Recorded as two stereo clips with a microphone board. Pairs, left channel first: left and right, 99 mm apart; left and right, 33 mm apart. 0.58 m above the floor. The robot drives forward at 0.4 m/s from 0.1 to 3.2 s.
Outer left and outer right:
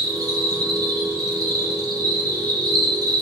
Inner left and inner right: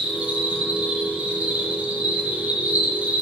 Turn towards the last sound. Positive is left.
turn(degrees=-45)  # may be behind; listen again after turning